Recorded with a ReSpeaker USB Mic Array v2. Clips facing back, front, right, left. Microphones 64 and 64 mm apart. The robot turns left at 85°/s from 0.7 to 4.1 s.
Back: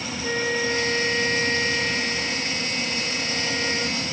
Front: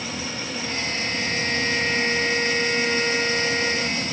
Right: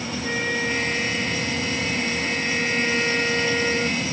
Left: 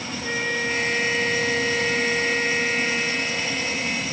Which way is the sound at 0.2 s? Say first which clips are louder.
Back 6 dB, even; straight behind.